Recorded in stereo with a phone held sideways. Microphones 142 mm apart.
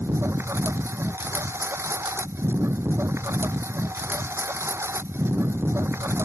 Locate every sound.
0.0 s a lawn mower: 15° right (ahead or behind)